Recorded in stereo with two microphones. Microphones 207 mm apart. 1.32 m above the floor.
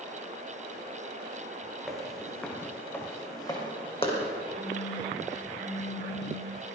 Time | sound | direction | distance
1.9 | footsteps | centre (ahead or behind) | 3 m
4.6 | a phone buzzing | 25° right (ahead or behind) | 3.5 m